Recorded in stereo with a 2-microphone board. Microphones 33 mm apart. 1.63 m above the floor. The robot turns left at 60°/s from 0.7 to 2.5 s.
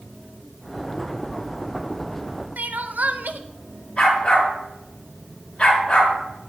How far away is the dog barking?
About 8 m.